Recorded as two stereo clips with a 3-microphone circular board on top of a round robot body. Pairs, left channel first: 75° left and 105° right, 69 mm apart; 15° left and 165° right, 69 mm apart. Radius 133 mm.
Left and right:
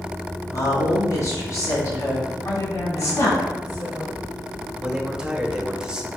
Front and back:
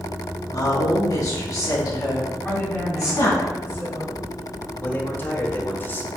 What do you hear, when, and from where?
0.5 s a woman speaking: 40° left, 3.5 m
2.5 s a woman speaking: 70° left, 4 m
4.8 s a man speaking: 30° right, 2.0 m